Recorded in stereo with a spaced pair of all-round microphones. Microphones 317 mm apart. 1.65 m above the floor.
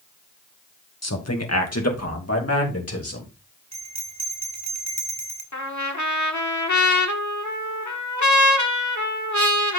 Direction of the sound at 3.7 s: 55° right (ahead or behind).